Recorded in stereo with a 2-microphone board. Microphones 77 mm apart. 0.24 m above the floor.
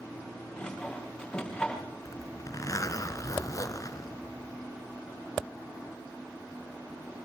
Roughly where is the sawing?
Centre.